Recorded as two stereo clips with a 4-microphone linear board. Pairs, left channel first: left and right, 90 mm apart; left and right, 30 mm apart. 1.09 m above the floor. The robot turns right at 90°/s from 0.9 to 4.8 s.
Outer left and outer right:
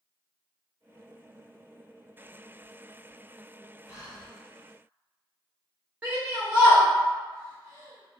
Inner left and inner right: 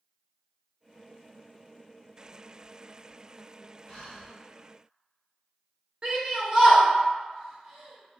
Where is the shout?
15° right (ahead or behind), 0.7 m.